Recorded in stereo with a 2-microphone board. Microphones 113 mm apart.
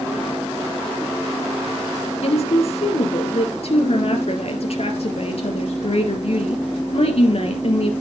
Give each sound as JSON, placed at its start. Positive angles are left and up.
{"t": 2.2, "sound": "a woman speaking", "side_deg": 60, "distance_m": 3.0}